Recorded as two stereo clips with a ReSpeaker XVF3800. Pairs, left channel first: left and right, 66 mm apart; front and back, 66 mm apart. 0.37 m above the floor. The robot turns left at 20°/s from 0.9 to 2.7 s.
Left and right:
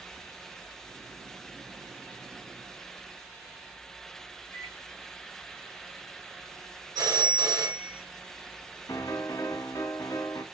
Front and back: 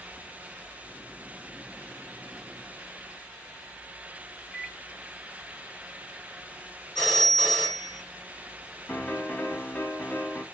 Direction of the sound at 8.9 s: 65° left.